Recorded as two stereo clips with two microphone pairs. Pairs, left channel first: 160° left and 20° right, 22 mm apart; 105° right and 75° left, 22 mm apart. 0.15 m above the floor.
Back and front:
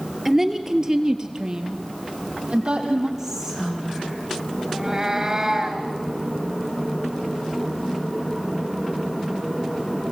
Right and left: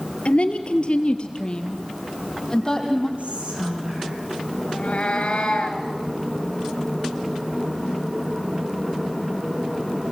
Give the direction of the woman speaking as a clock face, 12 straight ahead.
3 o'clock.